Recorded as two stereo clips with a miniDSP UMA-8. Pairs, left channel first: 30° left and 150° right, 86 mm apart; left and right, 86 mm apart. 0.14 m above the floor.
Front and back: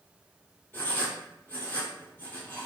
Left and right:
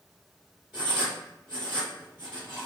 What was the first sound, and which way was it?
Writing, 25° right.